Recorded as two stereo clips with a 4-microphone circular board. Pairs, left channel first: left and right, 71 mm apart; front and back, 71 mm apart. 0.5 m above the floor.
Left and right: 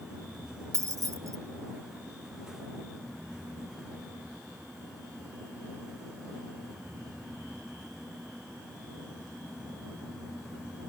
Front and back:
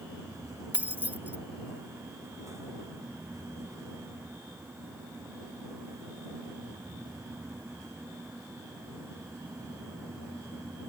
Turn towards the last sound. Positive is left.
turn(degrees=-120)